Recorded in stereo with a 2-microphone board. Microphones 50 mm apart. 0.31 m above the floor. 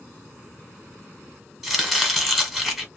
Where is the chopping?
5° right (ahead or behind), 1.4 m.